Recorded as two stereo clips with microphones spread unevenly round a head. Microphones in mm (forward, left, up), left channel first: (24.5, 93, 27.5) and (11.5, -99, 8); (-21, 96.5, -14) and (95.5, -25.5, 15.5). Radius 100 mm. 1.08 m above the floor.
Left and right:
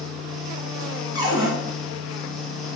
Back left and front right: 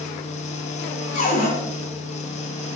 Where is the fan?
165° left, 0.7 m.